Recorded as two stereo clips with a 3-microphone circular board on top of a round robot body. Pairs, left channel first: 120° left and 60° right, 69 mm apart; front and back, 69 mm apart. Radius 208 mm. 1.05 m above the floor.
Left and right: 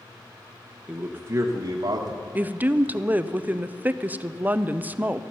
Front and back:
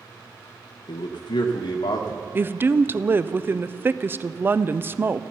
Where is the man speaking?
20° left, 0.9 m; by 2.2 s 30° right, 1.4 m.